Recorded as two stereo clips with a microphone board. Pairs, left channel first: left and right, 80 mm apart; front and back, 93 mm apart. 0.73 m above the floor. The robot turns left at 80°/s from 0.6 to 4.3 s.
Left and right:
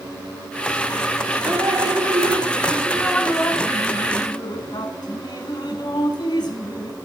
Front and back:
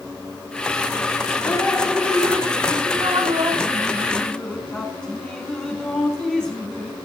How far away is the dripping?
About 1.2 m.